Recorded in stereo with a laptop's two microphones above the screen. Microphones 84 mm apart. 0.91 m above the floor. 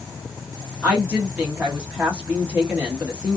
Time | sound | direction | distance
0.8 | a woman speaking | 15° right (ahead or behind) | 1.2 m